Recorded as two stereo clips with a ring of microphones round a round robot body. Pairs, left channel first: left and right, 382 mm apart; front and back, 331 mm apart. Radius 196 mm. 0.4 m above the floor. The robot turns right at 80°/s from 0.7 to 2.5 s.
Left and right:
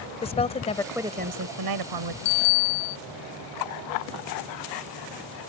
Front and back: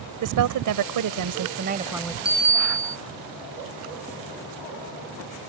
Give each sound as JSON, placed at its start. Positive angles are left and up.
{"t": 0.2, "sound": "a woman speaking", "azimuth_deg": 165}
{"t": 2.2, "sound": "a bicycle bell", "azimuth_deg": 80}